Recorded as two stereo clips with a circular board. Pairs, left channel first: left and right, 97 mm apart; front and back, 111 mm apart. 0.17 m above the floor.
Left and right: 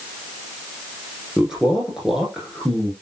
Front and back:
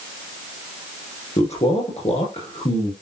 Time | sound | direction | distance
1.4 | a man speaking | 5° right | 7.5 m